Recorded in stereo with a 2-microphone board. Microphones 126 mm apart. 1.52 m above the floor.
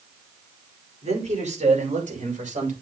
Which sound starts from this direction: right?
A man speaking, at 1.0 s.